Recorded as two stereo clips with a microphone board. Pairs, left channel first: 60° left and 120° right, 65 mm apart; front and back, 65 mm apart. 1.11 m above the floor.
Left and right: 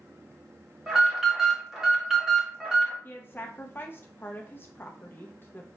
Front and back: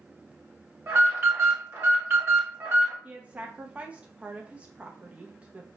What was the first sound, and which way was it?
An alarm, 160° left.